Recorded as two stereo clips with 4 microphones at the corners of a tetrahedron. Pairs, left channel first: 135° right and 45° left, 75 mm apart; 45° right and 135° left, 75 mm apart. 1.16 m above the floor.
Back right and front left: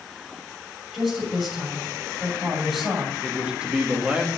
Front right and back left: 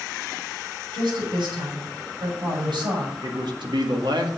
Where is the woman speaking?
135° left, 6.5 m.